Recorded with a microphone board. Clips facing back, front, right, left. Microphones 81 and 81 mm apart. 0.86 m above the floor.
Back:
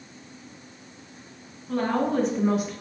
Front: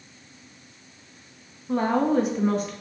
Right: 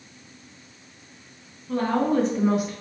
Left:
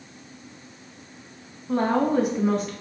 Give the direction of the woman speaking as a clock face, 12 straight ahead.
10 o'clock.